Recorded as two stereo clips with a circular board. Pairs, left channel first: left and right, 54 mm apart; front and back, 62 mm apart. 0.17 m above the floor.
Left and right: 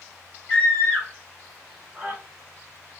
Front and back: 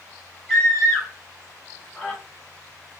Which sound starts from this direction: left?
A scream, at 0.5 s.